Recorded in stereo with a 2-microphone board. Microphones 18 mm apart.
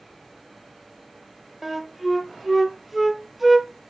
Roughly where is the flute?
Centre.